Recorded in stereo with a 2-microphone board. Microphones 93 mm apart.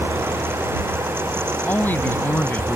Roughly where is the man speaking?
Centre.